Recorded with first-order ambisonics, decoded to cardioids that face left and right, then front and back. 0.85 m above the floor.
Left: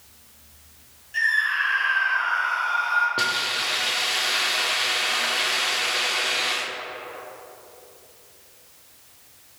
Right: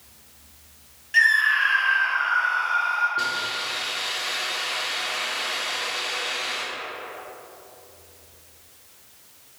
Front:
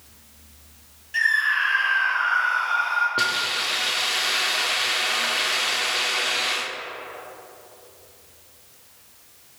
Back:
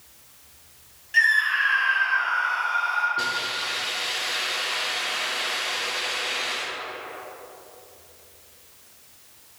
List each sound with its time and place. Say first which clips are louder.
1.1 s a scream: right 4 dB, back 1 dB; 105° right, 1.0 m; by 3.1 s 25° left, 1.2 m
3.2 s a hiss: left 2 dB, front 3 dB; 40° left, 0.5 m